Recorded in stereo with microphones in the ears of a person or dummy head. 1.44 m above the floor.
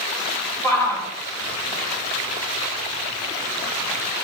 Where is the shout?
15° left (ahead or behind), 5 m.